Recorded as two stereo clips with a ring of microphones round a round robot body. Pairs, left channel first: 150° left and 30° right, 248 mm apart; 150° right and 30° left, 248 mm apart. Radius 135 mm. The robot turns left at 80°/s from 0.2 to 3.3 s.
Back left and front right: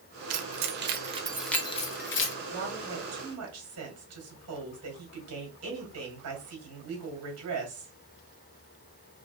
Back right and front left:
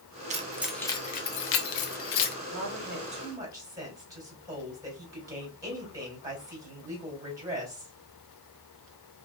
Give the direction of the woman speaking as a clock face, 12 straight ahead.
11 o'clock.